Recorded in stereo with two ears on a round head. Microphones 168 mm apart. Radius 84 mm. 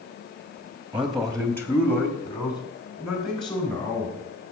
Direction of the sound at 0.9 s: 10° right (ahead or behind).